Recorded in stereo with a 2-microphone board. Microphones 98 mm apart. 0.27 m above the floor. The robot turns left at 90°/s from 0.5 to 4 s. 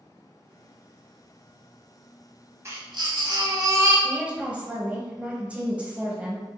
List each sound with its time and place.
2.6 s a baby crying: 35° right, 1.1 m; by 3.9 s 155° right, 1.1 m
4.0 s a woman speaking: 15° right (ahead or behind), 1.1 m